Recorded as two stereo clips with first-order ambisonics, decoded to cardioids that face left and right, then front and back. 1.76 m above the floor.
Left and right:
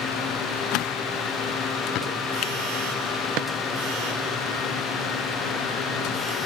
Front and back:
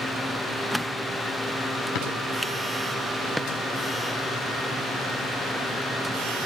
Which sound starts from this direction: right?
A drawer, at 3.4 s.